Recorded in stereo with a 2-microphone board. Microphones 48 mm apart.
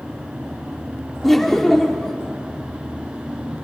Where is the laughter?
10° left (ahead or behind), 1.2 m.